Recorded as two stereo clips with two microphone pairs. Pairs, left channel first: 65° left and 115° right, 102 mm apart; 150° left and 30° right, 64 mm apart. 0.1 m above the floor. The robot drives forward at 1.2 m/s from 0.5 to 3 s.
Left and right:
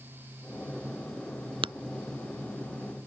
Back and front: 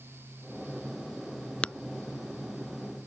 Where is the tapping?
140° right; by 1.7 s 145° right.